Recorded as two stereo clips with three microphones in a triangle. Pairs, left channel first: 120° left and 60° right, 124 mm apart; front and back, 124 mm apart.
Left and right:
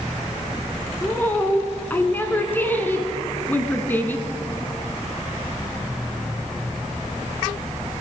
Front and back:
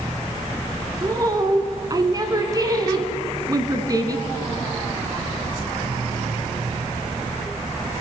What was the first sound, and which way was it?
A woman speaking, straight behind.